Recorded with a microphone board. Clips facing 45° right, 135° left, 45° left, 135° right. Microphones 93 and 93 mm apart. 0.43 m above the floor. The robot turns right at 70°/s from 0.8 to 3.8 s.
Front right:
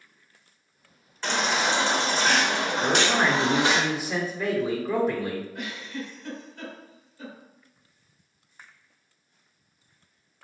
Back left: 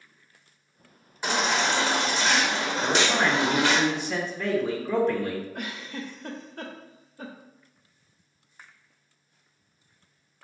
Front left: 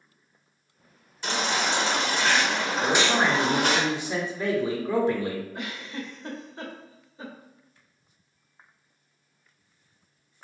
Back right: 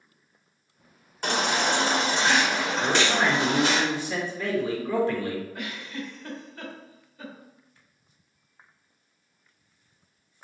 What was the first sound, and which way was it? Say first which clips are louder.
A baby crying: even, back right 2 dB; 150° right.